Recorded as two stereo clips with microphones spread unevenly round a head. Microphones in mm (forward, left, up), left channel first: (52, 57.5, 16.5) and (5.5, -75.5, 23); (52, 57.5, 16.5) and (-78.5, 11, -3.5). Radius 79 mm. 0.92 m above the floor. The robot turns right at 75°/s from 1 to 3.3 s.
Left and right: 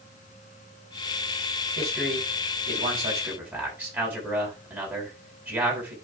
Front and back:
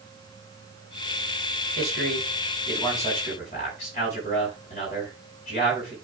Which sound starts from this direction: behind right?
A man speaking, at 1.8 s.